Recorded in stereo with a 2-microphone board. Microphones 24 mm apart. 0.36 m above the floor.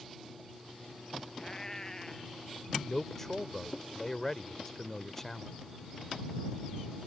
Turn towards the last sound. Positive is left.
turn(degrees=15)  # may be behind; listen again after turning